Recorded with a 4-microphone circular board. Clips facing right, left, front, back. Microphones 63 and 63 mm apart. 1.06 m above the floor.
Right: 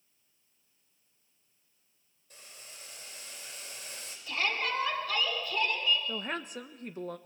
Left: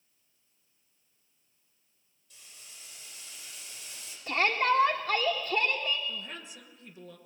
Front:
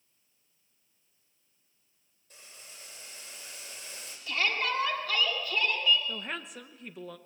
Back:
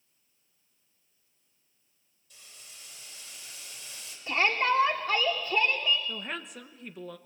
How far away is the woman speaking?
About 1.2 m.